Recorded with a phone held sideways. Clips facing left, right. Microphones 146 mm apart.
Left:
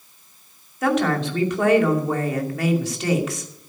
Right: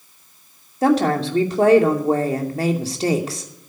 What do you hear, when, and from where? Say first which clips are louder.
0.8 s a woman speaking: right 4 dB; 35° right (ahead or behind), 2.5 m